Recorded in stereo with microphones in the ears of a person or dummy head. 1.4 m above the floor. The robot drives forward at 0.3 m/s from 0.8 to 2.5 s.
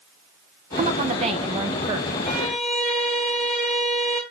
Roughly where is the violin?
Centre.